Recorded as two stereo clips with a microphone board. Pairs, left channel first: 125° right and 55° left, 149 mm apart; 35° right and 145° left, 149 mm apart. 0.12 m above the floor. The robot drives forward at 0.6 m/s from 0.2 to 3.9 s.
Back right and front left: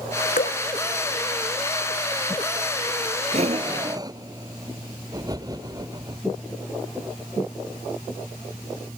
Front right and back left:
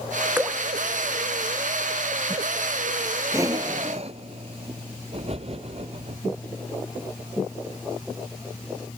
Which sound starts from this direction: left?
Breathing, at 3.3 s.